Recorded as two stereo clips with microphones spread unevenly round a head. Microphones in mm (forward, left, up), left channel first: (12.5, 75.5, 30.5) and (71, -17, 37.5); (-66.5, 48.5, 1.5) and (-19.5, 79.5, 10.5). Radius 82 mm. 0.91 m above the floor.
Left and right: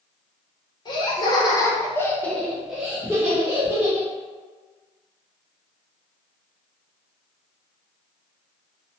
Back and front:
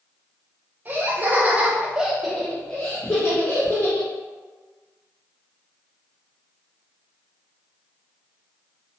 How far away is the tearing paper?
I don't hear tearing paper.